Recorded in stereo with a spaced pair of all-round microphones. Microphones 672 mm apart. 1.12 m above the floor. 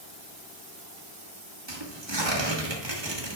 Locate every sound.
1.7 s tearing paper: 35° right (ahead or behind), 1.6 m